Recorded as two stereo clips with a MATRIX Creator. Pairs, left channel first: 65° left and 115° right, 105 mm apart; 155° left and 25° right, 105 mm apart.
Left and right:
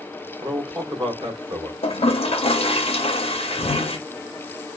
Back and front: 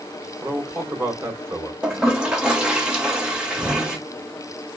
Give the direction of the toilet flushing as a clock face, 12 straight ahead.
10 o'clock.